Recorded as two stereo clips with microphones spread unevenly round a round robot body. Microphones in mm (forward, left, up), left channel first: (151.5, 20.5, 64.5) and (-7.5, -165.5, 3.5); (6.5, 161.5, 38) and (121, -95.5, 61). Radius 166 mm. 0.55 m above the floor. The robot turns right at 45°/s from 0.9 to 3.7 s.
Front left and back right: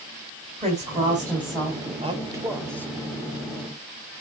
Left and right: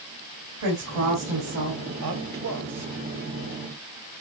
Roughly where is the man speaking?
Right.